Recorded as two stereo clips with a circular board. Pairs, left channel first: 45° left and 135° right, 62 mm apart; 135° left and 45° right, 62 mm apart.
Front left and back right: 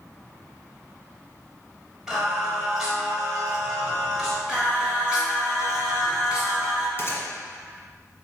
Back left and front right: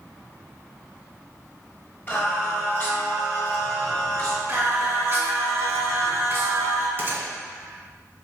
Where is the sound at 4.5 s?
65° right, 1.0 m.